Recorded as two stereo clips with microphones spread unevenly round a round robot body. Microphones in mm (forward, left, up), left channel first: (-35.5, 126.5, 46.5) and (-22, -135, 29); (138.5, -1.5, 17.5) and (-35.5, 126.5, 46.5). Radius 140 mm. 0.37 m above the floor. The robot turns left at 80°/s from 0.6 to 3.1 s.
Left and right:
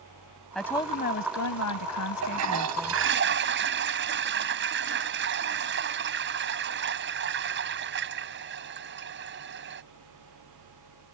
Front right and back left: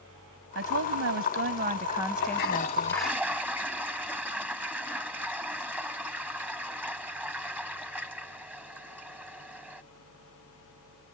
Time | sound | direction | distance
0.6 | a woman speaking | straight behind | ?
2.2 | a toilet flushing | 60° right | ?